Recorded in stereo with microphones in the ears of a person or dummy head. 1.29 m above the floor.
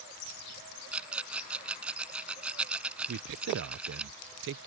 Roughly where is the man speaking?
Right.